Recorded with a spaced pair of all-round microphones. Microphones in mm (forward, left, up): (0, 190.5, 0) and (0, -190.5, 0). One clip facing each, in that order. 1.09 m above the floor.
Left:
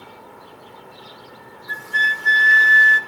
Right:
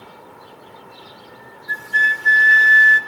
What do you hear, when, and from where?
1.7 s a flute: 10° left (ahead or behind), 0.9 m